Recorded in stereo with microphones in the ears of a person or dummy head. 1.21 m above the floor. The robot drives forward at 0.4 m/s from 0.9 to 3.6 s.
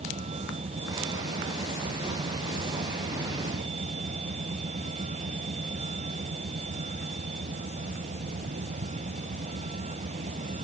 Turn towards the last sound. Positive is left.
turn(degrees=-40)  # may be behind; listen again after turning